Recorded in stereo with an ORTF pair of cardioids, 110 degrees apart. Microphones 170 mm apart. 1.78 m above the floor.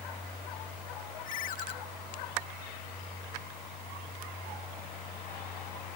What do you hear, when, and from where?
1.2 s a ringtone: 60° left